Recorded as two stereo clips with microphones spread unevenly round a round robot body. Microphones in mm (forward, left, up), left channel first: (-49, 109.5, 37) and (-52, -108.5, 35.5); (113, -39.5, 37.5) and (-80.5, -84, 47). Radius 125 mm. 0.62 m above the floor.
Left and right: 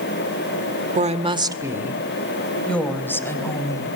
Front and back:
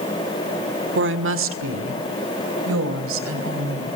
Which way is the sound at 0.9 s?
145° right.